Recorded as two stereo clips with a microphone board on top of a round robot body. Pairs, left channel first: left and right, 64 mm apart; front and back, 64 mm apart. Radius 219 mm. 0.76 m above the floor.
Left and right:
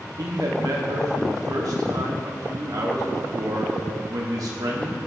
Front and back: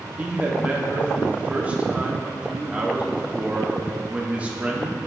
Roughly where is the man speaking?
Right.